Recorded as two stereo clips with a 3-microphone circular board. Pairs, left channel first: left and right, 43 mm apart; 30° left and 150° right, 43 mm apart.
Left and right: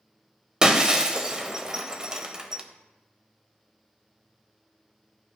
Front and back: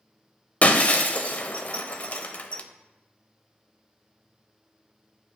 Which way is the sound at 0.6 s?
20° right.